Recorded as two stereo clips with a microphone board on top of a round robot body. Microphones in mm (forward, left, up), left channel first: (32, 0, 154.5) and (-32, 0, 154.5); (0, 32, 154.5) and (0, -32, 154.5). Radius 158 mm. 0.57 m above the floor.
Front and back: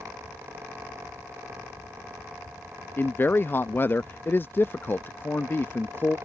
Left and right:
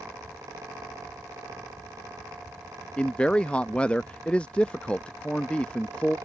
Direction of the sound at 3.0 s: 30° left.